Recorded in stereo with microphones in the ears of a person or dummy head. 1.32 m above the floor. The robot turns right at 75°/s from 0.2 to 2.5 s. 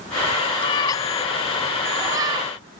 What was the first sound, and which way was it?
A cat meowing, 25° left (ahead or behind).